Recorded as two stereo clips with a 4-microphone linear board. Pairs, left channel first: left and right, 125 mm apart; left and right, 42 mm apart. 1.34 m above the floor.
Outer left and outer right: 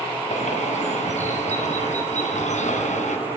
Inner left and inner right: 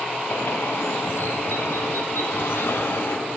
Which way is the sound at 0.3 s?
75° left (ahead or behind).